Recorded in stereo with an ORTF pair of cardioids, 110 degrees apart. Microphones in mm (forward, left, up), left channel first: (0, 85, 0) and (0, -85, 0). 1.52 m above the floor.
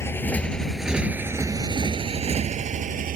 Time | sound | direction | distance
0.0 | a motorcycle | 15° left | ?